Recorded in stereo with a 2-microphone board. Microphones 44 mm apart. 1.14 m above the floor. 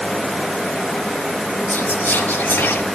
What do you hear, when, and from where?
1.7 s whispering: 70° left (ahead or behind), 1.7 m